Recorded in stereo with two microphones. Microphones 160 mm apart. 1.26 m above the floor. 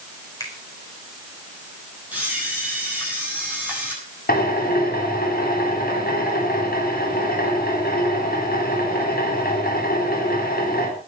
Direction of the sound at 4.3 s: 70° left (ahead or behind).